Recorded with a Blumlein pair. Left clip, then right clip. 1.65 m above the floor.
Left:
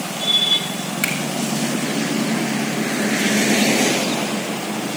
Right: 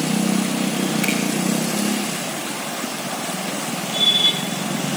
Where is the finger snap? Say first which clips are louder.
Left 2 dB; 65° left, 6 m.